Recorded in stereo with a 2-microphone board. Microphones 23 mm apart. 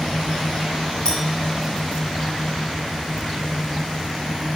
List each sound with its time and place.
1.1 s a clink: 35° left (ahead or behind), 4 m